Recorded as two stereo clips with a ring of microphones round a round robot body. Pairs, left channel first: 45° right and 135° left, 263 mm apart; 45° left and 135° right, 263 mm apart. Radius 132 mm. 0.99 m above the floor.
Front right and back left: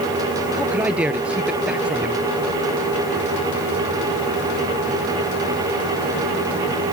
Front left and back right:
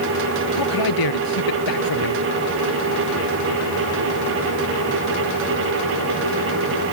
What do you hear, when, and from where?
0.5 s a man speaking: 50° left